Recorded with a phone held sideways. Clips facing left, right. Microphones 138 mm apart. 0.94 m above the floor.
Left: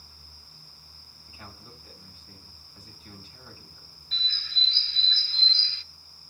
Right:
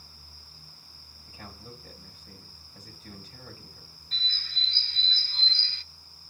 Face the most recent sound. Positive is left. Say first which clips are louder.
# left 1 dB
turn(degrees=-45)  # may be behind; listen again after turning